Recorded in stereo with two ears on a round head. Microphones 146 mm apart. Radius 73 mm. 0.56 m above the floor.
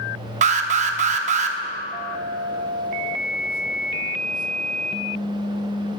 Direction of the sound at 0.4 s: 45° right (ahead or behind).